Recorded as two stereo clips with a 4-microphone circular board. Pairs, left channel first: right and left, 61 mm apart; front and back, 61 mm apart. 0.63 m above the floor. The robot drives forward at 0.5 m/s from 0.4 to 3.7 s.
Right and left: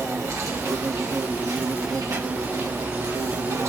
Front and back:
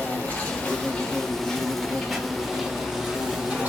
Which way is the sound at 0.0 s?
65° left.